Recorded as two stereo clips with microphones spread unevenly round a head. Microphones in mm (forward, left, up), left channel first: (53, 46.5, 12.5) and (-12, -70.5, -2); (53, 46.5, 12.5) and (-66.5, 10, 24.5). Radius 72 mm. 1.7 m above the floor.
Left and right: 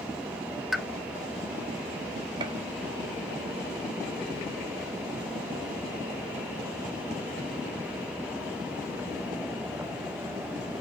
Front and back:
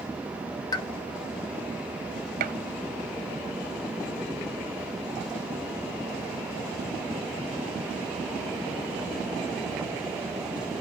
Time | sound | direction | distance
0.7 | a pop | 20° right | 0.6 m
2.4 | a gunshot | straight behind | 0.6 m